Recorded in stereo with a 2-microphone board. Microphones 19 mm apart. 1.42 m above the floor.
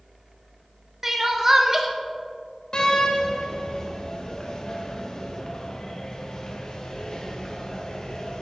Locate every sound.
1.0 s crying: 15° right (ahead or behind), 0.9 m
2.7 s a door slam: 55° left (ahead or behind), 1.1 m